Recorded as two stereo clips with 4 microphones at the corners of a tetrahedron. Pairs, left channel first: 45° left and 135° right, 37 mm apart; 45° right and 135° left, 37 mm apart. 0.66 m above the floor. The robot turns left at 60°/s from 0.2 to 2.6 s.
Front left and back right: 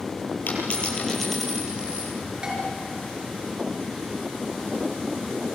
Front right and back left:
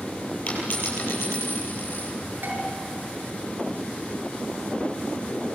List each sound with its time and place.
0.5 s a dropped coin: 5° left, 9 m; by 2.1 s 90° right, 9 m
2.4 s dishes clattering: 155° left, 6.5 m; by 2.6 s 145° left, 6.5 m